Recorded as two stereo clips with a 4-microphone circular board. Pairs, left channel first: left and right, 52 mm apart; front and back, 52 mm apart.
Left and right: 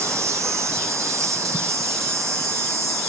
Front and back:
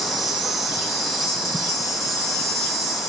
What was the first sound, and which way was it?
An insect, 95° right.